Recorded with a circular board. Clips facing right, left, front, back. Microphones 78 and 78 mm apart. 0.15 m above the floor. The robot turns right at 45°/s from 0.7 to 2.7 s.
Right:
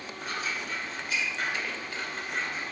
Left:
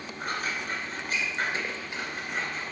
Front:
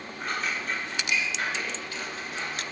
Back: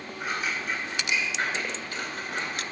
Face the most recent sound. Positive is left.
turn(degrees=-165)